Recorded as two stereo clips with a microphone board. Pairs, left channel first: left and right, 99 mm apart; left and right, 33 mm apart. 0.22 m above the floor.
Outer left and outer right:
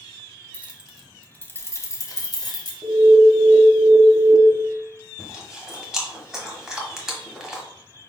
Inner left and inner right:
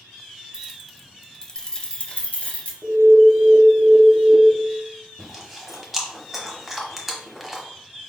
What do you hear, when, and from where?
0.5 s keys jangling: 20° right (ahead or behind), 0.6 m; by 2.7 s 50° left (ahead or behind), 1.1 m
2.8 s an alarm: 30° right (ahead or behind), 0.8 m
5.2 s chewing: 5° right (ahead or behind), 1.1 m